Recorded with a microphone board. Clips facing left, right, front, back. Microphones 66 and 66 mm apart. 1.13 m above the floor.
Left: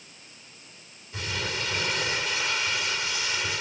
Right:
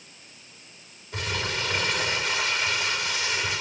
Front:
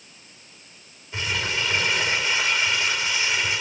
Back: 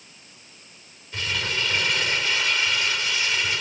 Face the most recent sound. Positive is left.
turn(degrees=-75)